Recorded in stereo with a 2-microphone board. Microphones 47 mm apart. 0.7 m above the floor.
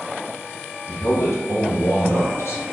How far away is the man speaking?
About 2 m.